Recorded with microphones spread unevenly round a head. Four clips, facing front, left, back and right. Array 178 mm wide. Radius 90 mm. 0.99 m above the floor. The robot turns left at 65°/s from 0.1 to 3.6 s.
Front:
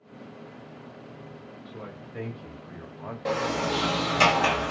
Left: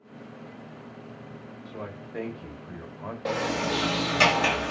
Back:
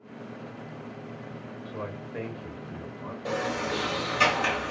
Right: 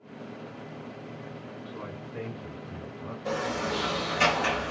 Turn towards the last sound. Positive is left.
turn(degrees=45)